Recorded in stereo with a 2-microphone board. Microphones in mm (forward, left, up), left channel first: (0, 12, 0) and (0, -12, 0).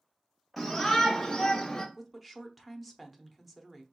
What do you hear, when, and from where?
0.6 s a shout: 5° right (ahead or behind), 1.1 m; by 1.9 s 20° left (ahead or behind), 1.2 m
1.9 s a woman speaking: 5° right (ahead or behind), 0.8 m